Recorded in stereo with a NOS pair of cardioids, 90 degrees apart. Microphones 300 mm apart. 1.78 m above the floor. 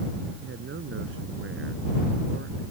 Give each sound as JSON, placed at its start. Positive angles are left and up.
{"t": 0.4, "sound": "a man speaking", "azimuth_deg": -40}